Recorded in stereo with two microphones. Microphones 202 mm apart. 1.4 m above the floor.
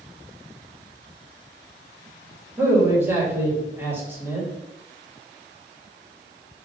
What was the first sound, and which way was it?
A man speaking, 10° right (ahead or behind).